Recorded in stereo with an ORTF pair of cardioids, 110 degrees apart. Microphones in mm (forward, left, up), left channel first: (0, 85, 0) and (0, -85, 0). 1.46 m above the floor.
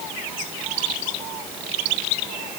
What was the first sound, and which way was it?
Only background noise.